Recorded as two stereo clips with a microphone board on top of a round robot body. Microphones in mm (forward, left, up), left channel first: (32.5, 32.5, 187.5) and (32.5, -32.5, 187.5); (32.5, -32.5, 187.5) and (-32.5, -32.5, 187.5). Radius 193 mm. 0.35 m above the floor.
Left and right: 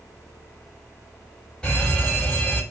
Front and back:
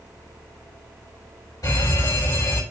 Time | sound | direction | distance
1.6 | a fire alarm | 15° left | 6 m